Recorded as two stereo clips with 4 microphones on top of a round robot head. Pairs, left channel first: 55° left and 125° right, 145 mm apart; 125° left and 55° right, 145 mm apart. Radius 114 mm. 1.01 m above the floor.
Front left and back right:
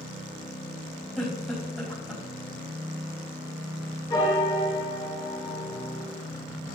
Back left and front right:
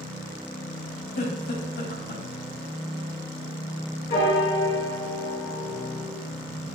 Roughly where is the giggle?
Behind left.